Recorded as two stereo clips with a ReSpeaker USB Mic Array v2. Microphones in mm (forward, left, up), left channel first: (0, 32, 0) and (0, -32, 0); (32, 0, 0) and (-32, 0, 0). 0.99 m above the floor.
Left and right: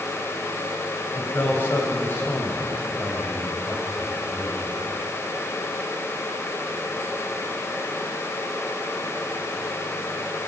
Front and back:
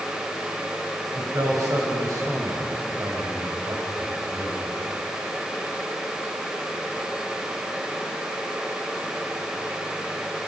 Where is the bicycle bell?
I don't hear a bicycle bell.